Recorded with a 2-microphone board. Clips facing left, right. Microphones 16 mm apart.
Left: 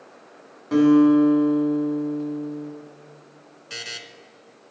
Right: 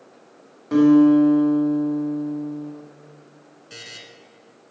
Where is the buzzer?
30° left (ahead or behind), 0.8 m.